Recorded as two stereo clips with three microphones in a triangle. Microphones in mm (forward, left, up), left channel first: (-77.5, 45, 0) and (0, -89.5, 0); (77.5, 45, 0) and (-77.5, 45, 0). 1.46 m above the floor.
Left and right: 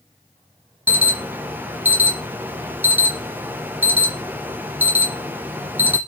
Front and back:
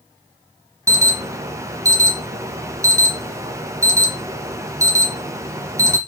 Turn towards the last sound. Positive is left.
turn(degrees=-130)